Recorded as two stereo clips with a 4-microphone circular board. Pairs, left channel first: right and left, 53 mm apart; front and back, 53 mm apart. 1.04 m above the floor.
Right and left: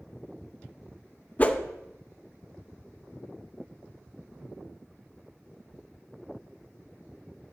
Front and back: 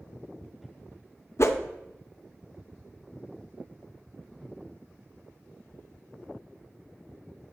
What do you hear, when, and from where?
1.4 s a whoosh: 30° right, 0.6 m